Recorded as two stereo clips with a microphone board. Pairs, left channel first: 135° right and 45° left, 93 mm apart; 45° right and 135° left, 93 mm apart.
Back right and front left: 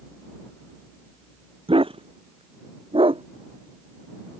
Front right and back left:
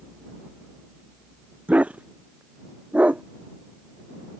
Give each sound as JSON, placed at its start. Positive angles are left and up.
{"t": 1.7, "sound": "a dog barking", "azimuth_deg": 60}